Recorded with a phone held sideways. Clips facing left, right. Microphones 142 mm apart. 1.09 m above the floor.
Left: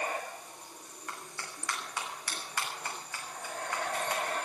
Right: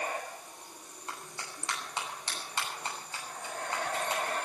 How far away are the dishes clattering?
No dishes clattering in this recording.